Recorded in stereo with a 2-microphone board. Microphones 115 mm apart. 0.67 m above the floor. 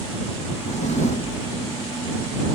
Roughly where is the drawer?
Left.